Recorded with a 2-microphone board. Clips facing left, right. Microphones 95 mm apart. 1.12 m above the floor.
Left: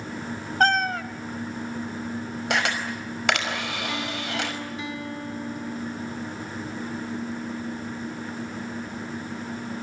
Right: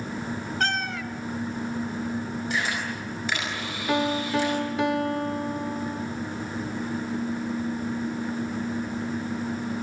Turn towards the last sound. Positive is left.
turn(degrees=-65)  # may be behind; listen again after turning